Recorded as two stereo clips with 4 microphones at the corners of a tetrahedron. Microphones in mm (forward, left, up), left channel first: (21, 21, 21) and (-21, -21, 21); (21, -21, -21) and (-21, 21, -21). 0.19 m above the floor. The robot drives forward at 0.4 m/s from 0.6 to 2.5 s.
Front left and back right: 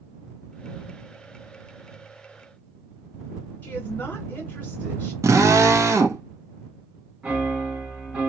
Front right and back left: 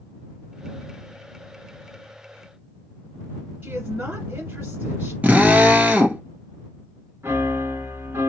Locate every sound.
3.6 s a woman speaking: 100° left, 1.7 m
5.2 s a drill: 160° right, 0.9 m
7.2 s a piano: 160° left, 1.3 m